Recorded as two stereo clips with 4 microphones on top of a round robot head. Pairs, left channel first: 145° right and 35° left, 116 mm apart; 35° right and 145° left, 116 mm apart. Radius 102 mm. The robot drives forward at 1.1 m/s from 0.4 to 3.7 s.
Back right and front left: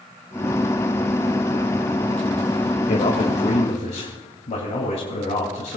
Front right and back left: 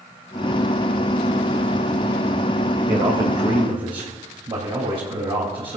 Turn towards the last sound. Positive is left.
turn(degrees=-170)